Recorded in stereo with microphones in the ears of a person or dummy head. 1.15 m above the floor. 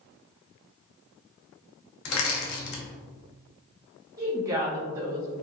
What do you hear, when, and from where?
2.0 s crushing: 70° left (ahead or behind), 0.8 m
4.2 s a woman speaking: 15° right (ahead or behind), 0.7 m